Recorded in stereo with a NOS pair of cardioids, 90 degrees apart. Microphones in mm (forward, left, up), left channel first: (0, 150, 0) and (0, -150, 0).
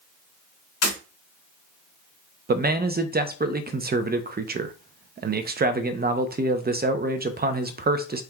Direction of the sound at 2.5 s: 35° right.